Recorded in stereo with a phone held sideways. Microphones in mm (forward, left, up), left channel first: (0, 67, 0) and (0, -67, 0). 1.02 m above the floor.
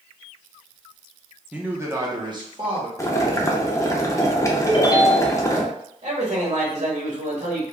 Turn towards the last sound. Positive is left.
turn(degrees=-60)  # may be behind; listen again after turning